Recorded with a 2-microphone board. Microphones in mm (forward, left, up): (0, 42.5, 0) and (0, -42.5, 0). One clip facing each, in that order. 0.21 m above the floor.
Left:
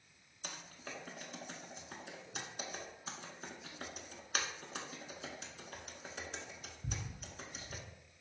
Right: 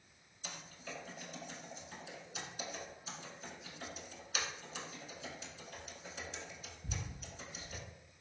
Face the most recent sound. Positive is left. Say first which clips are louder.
# even
turn(degrees=55)  # may be behind; listen again after turning